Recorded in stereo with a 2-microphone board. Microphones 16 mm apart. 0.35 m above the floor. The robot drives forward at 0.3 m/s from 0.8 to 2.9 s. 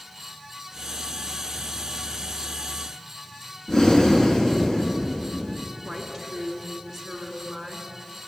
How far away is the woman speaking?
About 3.5 m.